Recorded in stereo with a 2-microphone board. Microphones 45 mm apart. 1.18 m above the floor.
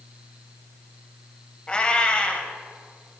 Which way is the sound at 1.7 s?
25° left (ahead or behind).